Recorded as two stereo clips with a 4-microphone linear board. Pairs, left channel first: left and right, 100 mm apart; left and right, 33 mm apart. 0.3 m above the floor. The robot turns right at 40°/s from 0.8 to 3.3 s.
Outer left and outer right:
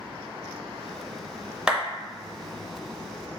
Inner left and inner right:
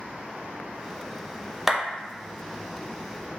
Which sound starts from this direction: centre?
A clap, at 1.7 s.